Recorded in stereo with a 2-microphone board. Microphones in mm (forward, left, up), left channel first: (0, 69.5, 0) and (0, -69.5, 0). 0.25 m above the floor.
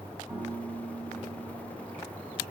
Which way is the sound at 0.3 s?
20° right (ahead or behind).